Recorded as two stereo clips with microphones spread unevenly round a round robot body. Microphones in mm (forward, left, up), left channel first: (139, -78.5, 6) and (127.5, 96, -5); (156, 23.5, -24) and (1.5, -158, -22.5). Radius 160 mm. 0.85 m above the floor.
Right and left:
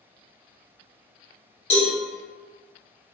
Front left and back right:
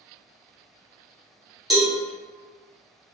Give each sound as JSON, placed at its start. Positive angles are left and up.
{"t": 1.7, "sound": "a cowbell", "azimuth_deg": -45, "distance_m": 1.1}